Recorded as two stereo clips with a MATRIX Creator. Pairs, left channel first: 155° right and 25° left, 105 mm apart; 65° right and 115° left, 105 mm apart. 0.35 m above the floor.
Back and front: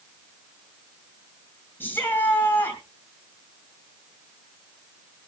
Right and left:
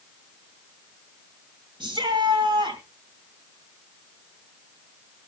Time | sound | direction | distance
1.8 | a shout | 135° left | 2 m